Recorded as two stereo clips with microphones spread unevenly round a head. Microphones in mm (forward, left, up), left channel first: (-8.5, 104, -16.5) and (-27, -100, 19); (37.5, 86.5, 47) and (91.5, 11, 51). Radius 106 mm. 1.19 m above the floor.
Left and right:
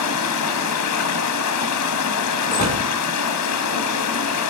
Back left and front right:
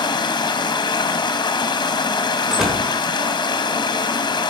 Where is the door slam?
30° left, 3.5 m.